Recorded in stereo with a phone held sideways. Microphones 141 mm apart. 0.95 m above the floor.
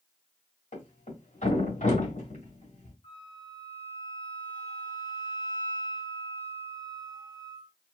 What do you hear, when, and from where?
0.7 s a thud: 70° left (ahead or behind), 2.0 m
3.0 s a flute: 45° left (ahead or behind), 2 m